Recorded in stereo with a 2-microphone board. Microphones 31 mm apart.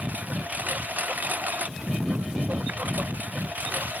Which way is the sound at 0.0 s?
60° right (ahead or behind).